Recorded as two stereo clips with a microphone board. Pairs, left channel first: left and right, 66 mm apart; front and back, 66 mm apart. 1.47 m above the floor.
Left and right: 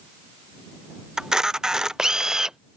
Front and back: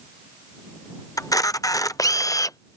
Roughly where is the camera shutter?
Ahead.